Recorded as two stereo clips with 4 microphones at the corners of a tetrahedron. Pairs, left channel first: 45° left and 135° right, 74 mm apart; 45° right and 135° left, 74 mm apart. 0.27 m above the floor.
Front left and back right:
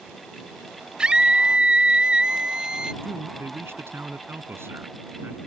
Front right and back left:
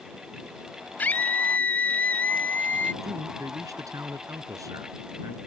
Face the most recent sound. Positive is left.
turn(degrees=170)